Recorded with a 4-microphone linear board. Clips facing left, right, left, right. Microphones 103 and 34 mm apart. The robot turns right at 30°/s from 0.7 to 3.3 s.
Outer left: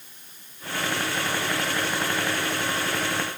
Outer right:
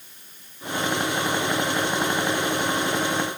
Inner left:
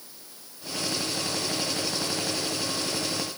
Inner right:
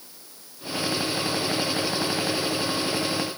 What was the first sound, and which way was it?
Only background noise.